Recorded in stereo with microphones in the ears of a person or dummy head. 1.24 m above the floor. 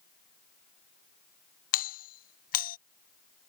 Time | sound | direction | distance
1.7 | a doorbell | 45° left (ahead or behind) | ?